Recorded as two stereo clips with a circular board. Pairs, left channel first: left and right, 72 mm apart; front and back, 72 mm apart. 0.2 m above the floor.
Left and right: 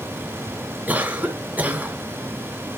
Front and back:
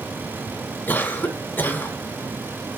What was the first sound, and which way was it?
A cough, 40° right.